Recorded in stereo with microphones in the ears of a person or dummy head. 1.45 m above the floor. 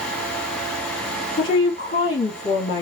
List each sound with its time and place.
1.4 s a woman speaking: 40° left (ahead or behind), 1.9 m